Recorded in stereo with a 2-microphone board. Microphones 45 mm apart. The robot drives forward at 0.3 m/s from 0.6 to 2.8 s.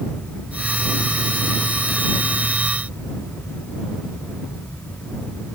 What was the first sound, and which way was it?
Only background noise.